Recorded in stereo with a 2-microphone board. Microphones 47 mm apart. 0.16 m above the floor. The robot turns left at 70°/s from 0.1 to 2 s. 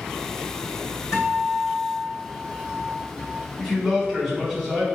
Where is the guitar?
95° left, 2.0 m; by 3.4 s 30° left, 2.0 m.